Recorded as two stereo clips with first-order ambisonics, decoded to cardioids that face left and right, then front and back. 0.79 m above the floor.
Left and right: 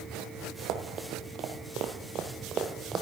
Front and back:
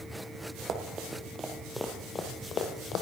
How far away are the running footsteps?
About 1.3 m.